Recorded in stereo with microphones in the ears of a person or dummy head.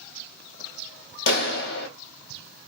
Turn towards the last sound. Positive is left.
turn(degrees=55)  # may be behind; listen again after turning